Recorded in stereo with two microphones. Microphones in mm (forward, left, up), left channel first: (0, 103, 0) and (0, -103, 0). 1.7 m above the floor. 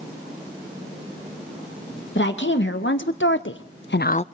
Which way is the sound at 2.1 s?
70° left (ahead or behind).